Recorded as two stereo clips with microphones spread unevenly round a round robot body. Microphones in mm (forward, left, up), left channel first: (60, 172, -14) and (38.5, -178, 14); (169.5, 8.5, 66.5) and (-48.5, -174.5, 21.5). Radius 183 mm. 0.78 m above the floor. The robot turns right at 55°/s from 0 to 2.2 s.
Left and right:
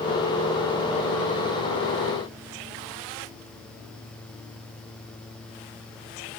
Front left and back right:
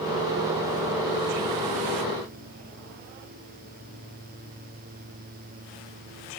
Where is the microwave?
No microwave in this recording.